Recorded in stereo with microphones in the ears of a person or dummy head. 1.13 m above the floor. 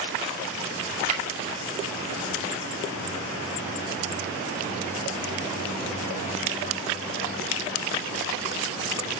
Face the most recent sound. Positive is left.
turn(degrees=-50)  # may be behind; listen again after turning